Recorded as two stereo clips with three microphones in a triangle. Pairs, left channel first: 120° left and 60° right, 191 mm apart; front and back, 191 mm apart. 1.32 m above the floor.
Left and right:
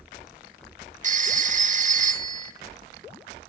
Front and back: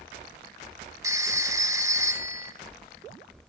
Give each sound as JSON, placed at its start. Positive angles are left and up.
{"t": 1.0, "sound": "a phone ringing", "azimuth_deg": -110, "distance_m": 0.6}